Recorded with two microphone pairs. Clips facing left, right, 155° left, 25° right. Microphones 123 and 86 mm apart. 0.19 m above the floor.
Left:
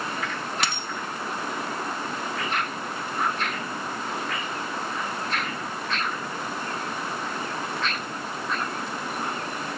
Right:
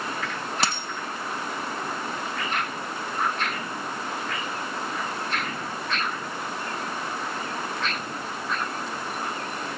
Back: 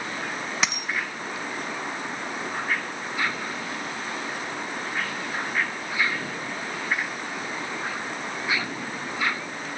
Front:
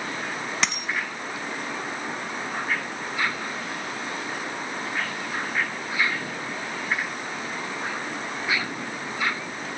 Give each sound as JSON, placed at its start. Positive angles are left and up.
{"t": 0.6, "sound": "a dropped coin", "azimuth_deg": -125, "distance_m": 0.6}